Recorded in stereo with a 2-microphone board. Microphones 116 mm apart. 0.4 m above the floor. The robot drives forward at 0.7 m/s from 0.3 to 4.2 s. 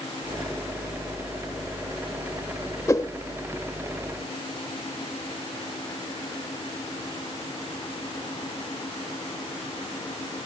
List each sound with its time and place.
2.9 s a whoosh: 25° left (ahead or behind), 0.6 m; by 3.1 s 30° left (ahead or behind), 0.5 m